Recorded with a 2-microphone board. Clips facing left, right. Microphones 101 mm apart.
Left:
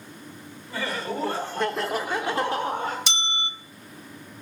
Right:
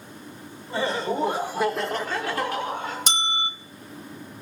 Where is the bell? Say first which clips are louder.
Right 3 dB; 45° right (ahead or behind), 0.6 m.